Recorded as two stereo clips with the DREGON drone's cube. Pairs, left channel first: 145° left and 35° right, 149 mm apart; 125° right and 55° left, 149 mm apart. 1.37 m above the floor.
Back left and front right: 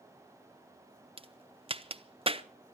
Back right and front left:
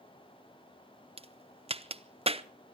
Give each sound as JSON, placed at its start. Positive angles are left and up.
{"t": 1.2, "sound": "a crack", "azimuth_deg": 15, "distance_m": 0.8}